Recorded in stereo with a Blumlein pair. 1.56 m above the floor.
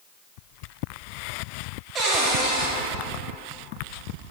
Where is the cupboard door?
30° right, 2.5 m.